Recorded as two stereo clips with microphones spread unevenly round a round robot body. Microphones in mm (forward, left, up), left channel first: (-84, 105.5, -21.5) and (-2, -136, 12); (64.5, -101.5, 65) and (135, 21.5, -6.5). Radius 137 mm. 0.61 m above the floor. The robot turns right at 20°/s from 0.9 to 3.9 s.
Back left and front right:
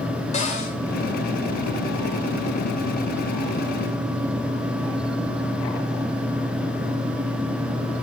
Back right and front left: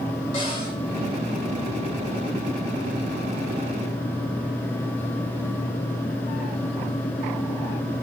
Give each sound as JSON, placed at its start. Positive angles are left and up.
{"t": 0.3, "sound": "a cupboard door", "azimuth_deg": 165, "distance_m": 3.0}